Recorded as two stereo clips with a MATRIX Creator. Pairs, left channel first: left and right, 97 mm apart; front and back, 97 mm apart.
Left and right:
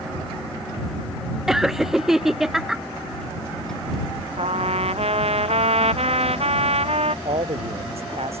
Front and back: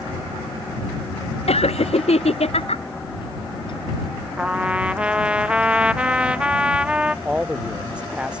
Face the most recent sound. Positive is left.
turn(degrees=-100)